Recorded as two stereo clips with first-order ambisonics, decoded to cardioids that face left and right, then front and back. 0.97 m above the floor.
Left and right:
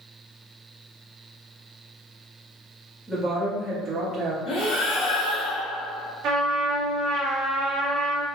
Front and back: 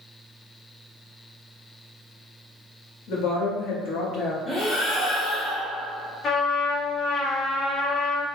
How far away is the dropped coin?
I don't hear a dropped coin.